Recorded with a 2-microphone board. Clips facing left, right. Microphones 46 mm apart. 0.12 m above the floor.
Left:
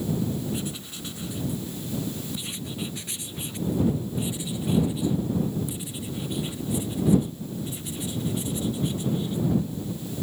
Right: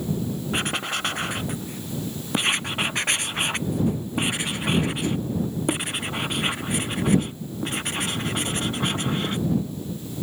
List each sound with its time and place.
0.5 s writing: 70° right (ahead or behind)